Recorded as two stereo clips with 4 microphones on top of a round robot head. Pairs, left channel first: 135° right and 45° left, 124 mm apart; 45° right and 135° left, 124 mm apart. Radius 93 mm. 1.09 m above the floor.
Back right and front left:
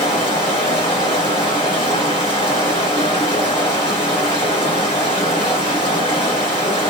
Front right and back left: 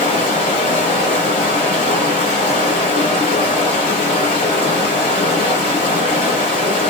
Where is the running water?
90° right, 1.1 m.